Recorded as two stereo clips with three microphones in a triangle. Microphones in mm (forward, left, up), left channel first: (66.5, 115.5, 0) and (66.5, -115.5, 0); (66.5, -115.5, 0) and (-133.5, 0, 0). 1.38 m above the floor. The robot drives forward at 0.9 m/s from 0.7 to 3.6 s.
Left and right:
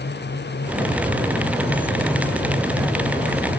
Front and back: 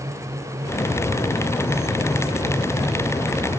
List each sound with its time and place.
Only background noise.